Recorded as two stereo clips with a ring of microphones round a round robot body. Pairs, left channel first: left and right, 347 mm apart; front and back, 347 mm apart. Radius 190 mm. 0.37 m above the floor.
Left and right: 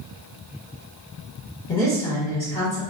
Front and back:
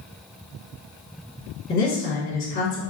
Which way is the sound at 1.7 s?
25° left.